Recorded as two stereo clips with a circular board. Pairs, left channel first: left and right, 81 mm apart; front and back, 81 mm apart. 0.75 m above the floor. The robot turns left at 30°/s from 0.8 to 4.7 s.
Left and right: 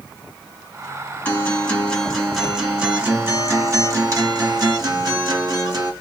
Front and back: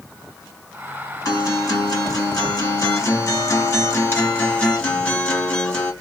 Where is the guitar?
30° left, 1.6 m; by 5.9 s 75° right, 1.6 m.